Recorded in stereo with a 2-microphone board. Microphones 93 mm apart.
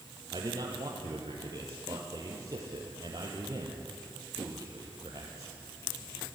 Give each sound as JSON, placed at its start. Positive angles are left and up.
{"t": 0.3, "sound": "a man speaking", "side_deg": -40, "distance_m": 3.5}